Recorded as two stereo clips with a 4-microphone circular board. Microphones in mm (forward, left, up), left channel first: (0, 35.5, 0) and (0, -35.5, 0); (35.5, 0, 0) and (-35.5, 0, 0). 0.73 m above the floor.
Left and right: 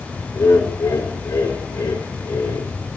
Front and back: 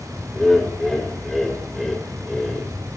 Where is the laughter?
85° left, 2.5 m.